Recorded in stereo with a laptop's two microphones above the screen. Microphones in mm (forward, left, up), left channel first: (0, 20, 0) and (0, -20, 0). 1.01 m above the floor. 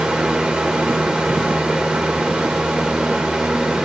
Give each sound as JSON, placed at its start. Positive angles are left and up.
{"t": 0.0, "sound": "a fan", "side_deg": -15, "distance_m": 2.0}